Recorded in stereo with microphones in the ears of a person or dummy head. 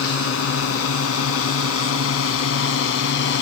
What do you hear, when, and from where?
0.0 s a drone: 85° left; by 3.4 s 70° left (ahead or behind)